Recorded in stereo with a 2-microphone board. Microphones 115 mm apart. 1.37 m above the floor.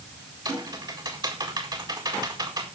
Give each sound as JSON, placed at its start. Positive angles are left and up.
{"t": 0.5, "sound": "typing on a keyboard", "side_deg": -40, "distance_m": 4.0}